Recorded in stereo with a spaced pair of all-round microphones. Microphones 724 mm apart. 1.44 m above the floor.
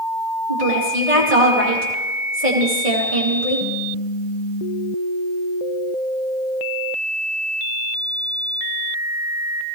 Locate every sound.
0.5 s a woman speaking: 85° right, 2.5 m